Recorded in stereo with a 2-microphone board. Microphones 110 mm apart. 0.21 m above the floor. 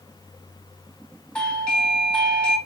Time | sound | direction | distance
1.4 | a doorbell | 10° left (ahead or behind) | 1.7 m